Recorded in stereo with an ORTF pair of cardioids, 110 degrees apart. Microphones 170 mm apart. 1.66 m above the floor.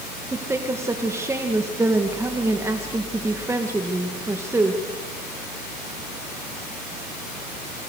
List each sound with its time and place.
0.3 s a woman speaking: 15° right, 2 m